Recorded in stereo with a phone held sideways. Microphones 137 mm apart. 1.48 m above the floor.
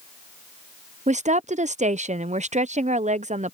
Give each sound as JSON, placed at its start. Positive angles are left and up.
{"t": 1.1, "sound": "a woman speaking", "side_deg": -60}